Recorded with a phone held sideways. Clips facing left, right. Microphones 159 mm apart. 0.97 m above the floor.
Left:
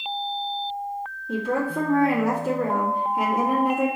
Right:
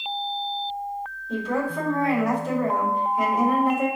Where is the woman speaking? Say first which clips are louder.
Left 1 dB; 75° left (ahead or behind), 3 m.